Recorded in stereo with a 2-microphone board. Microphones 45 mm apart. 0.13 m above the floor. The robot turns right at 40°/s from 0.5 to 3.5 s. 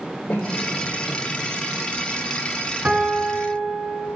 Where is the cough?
45° left (ahead or behind), 3.5 m; by 1.2 s 20° left (ahead or behind), 3.5 m.